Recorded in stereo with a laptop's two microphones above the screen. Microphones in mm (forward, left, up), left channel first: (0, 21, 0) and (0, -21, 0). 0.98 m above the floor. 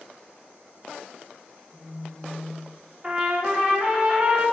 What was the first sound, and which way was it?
A phone buzzing, 25° left (ahead or behind).